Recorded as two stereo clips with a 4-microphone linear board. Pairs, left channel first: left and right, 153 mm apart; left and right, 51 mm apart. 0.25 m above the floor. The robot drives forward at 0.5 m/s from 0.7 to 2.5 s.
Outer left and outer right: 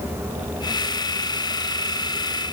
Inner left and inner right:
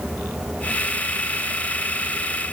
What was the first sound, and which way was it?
Only background noise.